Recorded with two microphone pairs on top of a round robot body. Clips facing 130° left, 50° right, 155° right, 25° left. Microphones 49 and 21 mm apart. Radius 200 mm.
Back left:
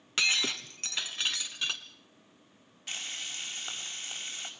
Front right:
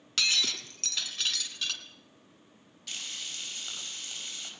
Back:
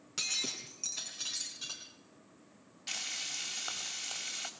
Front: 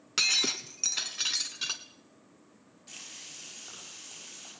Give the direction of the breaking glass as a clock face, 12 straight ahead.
10 o'clock.